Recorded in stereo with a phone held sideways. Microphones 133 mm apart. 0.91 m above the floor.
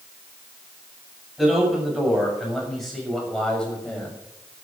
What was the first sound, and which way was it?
A man speaking, 5° right (ahead or behind).